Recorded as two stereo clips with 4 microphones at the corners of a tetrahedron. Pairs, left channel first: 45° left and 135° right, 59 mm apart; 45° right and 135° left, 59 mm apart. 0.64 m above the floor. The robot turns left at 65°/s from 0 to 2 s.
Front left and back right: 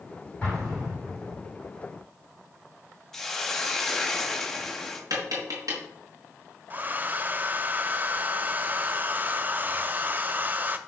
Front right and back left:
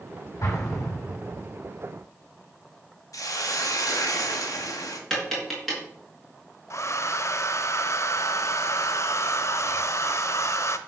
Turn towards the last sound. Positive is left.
turn(degrees=-80)